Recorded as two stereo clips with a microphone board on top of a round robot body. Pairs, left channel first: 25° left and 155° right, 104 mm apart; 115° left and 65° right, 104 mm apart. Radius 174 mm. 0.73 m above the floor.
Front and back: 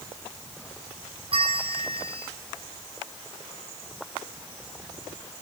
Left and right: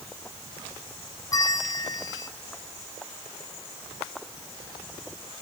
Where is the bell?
170° left, 2.5 m.